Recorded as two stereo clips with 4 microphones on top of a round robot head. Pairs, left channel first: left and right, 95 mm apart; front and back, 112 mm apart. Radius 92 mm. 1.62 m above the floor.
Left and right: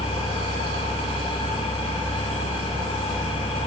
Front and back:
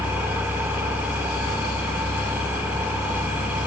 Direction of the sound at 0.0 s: 105° left.